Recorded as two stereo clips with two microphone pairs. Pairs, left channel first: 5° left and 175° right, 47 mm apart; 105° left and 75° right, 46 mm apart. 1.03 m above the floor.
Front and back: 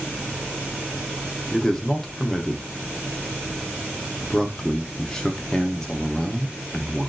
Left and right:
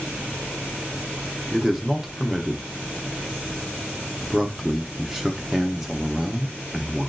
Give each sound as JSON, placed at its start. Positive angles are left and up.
{"t": 1.5, "sound": "a man speaking", "azimuth_deg": -25, "distance_m": 0.5}